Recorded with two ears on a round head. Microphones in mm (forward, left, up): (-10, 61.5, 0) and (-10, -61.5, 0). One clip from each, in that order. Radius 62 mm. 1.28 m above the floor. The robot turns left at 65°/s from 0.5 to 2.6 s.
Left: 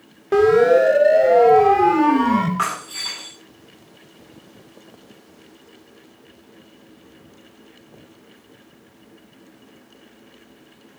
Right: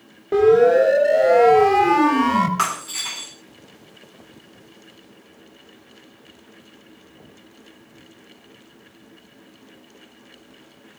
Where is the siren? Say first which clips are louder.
Even; 35° left (ahead or behind), 4.5 m; by 2.5 s 70° right (ahead or behind), 4 m.